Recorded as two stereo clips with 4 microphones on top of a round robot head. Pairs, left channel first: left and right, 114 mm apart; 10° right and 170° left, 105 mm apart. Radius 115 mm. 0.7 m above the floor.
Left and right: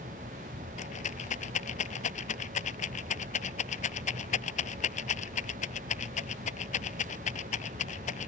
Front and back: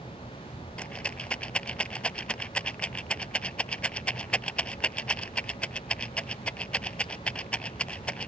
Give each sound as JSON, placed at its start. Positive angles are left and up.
{"t": 0.8, "sound": "a rattle", "azimuth_deg": 70}